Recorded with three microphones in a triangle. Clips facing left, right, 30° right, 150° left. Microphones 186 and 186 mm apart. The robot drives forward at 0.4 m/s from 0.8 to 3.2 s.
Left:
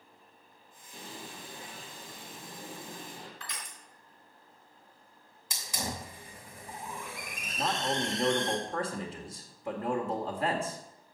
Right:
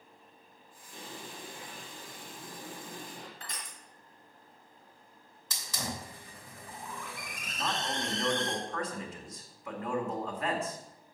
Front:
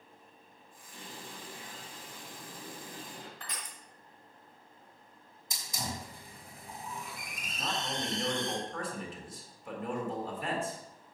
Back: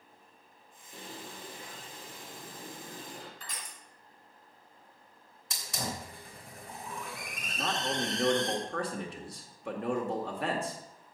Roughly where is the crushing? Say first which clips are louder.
Even, front 1 dB; ahead right.